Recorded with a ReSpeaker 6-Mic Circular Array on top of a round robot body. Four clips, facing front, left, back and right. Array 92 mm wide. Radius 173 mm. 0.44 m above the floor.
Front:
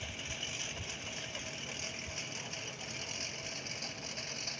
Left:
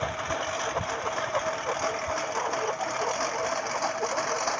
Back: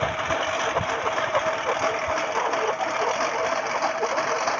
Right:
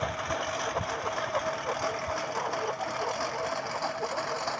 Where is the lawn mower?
Straight behind; by 4.6 s 170° left.